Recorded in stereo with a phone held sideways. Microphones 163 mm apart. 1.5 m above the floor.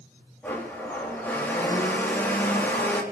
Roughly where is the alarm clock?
I don't hear an alarm clock.